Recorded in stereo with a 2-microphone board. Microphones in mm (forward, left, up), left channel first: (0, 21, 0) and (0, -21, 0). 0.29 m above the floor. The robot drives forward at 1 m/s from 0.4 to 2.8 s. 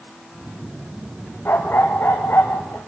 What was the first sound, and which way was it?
A dog barking, 65° left (ahead or behind).